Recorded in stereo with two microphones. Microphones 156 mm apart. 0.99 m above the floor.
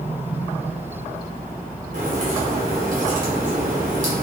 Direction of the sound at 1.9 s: 55° right (ahead or behind).